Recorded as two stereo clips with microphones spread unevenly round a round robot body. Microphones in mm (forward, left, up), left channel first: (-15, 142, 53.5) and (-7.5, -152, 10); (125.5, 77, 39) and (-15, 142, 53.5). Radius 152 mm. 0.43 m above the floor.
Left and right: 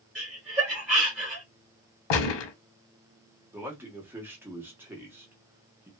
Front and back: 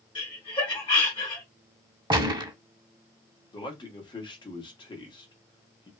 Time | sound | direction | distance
0.1 | laughter | 10° right | 1.7 m
2.1 | a gunshot | 90° left | 0.9 m
3.5 | a man speaking | 25° right | 1.0 m